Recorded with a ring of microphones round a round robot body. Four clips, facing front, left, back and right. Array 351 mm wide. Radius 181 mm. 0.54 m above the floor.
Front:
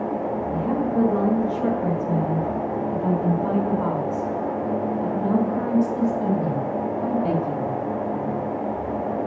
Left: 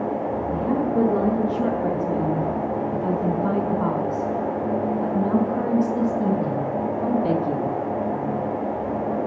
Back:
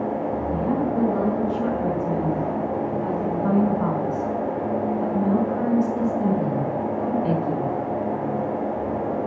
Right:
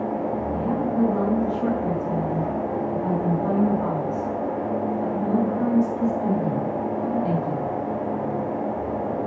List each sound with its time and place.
0.5 s a woman speaking: 110° left, 9.5 m